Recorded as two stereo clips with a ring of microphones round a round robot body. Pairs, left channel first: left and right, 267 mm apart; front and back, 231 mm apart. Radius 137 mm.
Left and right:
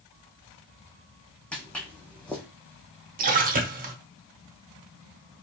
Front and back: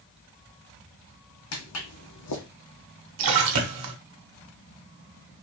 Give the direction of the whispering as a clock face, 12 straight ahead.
I don't hear whispering.